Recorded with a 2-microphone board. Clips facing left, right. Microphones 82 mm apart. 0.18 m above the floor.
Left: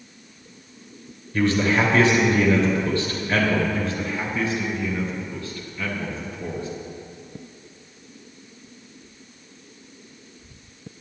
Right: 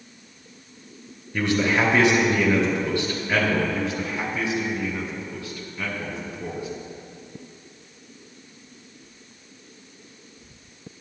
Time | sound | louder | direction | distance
1.3 | a man speaking | left 2 dB | 20° right (ahead or behind) | 2.5 m
3.7 | a man speaking | left 1 dB | 20° right (ahead or behind) | 2 m